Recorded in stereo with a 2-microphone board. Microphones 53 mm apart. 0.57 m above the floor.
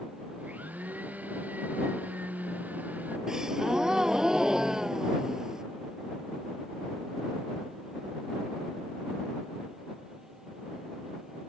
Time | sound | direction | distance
0.4 | a blender | 30° right (ahead or behind) | ?
3.3 | a gasp | 10° right (ahead or behind) | ?